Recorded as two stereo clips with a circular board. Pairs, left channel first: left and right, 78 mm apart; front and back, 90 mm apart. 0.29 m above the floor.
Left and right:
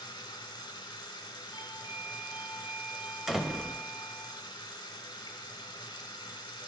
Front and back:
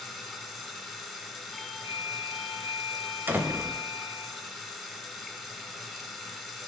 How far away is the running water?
About 0.8 m.